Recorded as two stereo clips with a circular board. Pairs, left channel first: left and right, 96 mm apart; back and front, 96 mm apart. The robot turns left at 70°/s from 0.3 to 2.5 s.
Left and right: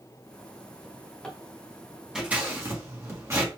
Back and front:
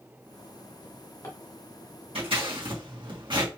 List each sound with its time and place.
0.8 s a drawer: 170° right, 1.4 m; by 1.4 s 155° left, 1.4 m
2.1 s scissors: 5° right, 1.4 m; by 3.5 s 30° right, 1.4 m